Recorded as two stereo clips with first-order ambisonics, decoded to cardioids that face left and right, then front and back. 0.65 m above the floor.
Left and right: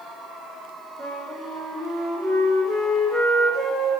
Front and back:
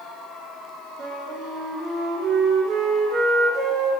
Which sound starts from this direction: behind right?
A flute, at 1.0 s.